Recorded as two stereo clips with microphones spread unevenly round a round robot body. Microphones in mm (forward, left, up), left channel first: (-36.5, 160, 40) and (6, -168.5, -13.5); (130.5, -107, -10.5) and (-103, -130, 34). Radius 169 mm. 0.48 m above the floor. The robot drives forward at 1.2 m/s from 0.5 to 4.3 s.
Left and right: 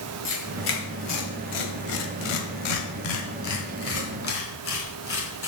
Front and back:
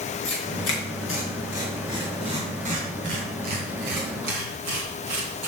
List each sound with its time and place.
0.2 s tearing paper: 40° left, 2.5 m; by 5.5 s 150° left, 3 m